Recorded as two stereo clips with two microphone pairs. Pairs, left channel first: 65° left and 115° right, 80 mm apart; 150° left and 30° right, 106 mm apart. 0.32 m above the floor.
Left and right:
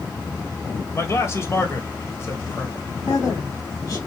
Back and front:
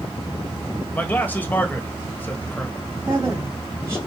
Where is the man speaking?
90° left, 1.4 m.